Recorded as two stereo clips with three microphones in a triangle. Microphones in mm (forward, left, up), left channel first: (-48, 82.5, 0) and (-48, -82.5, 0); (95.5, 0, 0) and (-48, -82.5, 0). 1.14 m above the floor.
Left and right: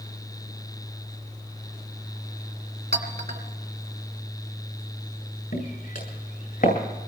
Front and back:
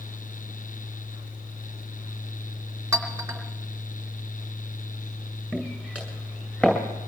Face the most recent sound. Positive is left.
turn(degrees=110)